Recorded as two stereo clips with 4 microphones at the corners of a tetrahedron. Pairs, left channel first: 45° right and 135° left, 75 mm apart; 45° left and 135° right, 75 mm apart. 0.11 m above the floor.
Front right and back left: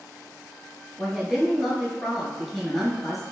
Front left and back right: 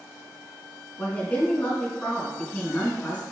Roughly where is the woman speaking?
Ahead left.